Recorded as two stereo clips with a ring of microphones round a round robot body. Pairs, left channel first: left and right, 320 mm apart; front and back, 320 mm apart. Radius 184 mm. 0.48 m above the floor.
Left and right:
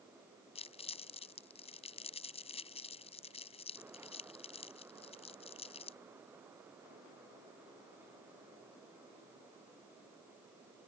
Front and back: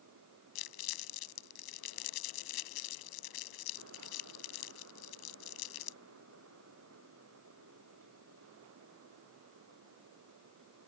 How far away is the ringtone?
No ringtone in this recording.